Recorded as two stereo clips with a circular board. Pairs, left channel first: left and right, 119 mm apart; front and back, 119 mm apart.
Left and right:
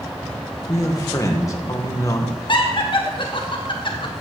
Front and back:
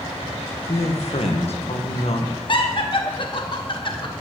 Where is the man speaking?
30° left, 1.6 m.